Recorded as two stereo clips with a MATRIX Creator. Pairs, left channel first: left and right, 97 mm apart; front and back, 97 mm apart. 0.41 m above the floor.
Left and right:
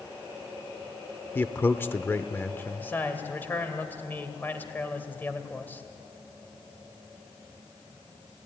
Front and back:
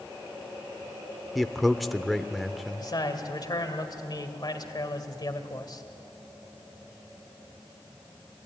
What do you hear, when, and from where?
1.4 s a man speaking: 90° left, 0.8 m
2.8 s a man speaking: 25° left, 2.0 m